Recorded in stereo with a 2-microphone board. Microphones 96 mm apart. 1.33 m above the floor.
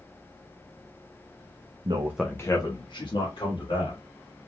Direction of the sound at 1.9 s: 55° right (ahead or behind).